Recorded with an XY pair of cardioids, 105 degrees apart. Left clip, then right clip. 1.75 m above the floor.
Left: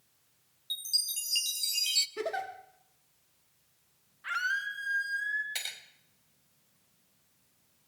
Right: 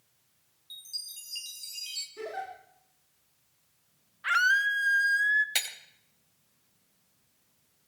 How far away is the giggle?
About 3.5 m.